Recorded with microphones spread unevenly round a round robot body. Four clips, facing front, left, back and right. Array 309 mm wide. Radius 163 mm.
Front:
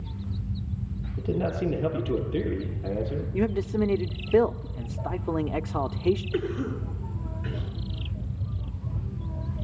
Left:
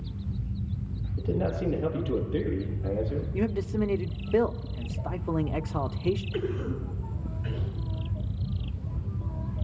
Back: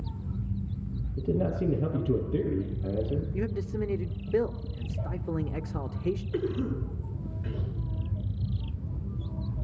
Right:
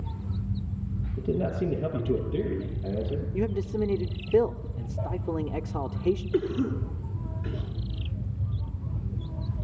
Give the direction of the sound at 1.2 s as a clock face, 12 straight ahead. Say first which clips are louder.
Right 1 dB, front 1 dB; 5 o'clock.